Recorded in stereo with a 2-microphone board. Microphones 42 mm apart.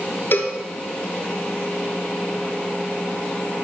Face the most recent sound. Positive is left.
turn(degrees=55)  # may be behind; listen again after turning